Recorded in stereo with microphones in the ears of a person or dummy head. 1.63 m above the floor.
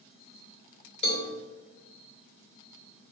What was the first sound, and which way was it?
A cowbell, 35° left (ahead or behind).